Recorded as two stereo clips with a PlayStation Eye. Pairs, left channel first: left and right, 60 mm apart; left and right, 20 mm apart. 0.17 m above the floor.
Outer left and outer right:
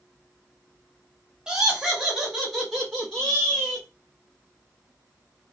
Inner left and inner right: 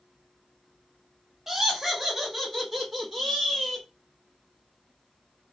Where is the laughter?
10° right (ahead or behind), 1.1 m; by 3.9 s 5° left (ahead or behind), 1.4 m.